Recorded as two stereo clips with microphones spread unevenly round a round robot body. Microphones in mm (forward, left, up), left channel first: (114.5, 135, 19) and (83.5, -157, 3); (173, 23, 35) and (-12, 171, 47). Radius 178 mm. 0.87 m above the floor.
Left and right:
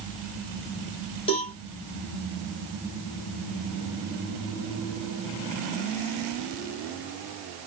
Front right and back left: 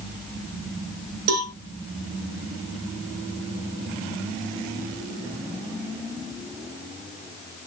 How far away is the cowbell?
About 1.4 m.